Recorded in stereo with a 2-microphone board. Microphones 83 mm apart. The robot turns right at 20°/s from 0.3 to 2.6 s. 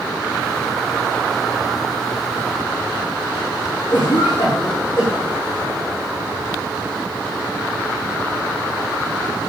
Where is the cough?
65° left (ahead or behind), 6.5 m.